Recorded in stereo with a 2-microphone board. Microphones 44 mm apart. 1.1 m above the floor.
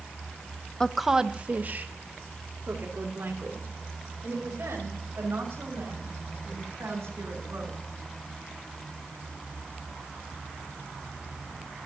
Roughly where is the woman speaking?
Centre.